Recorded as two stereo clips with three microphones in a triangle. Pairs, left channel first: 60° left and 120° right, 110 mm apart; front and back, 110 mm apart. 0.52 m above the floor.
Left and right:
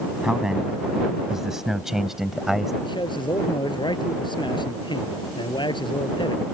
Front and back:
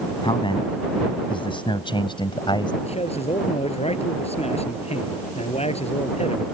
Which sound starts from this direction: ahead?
A man speaking, at 2.8 s.